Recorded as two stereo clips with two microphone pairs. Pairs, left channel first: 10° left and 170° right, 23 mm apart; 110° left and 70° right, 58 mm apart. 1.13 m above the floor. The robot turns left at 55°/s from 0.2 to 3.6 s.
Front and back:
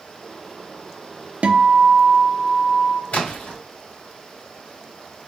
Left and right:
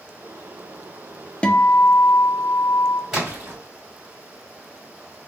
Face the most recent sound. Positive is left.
turn(degrees=-20)